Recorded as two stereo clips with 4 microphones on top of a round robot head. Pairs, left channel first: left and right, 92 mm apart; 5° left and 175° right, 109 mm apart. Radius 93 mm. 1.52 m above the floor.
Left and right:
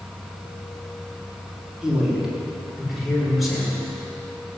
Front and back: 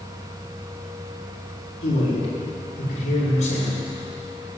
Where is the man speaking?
5° right, 5 m; by 3.8 s straight ahead, 6.5 m.